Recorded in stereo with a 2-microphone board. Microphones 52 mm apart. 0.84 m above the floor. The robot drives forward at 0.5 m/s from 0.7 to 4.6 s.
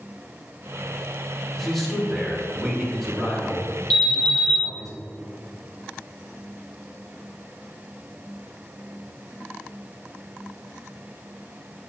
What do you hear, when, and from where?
1.6 s a man speaking: 5° left (ahead or behind), 1.8 m; by 4.9 s centre (ahead or behind), 3.5 m
3.9 s an alarm: 10° left (ahead or behind), 1.6 m; by 4.6 s 15° left (ahead or behind), 1.2 m